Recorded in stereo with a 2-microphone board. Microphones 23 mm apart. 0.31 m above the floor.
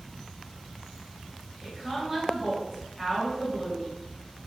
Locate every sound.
1.6 s a woman speaking: 20° right (ahead or behind), 1.1 m